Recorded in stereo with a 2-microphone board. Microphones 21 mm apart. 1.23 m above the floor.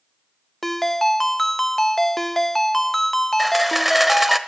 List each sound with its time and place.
0.6 s a ringtone: 10° left (ahead or behind), 0.6 m
3.4 s a camera shutter: 10° right (ahead or behind), 1.1 m